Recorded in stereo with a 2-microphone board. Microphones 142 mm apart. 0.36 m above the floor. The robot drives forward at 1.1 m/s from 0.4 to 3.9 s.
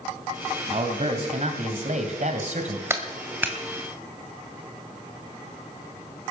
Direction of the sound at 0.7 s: 45° right (ahead or behind).